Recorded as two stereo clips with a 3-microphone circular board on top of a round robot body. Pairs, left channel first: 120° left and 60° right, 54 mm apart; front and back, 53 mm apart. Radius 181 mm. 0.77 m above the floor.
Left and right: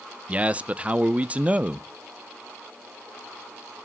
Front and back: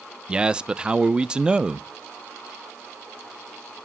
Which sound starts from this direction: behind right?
A man speaking, at 0.3 s.